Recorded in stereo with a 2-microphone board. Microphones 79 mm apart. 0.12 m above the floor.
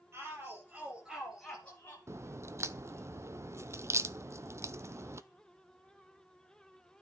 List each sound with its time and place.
0.1 s a shout: 35° right (ahead or behind), 3 m; by 2.0 s 25° left (ahead or behind), 2.5 m
2.1 s a crack: 40° right (ahead or behind), 0.6 m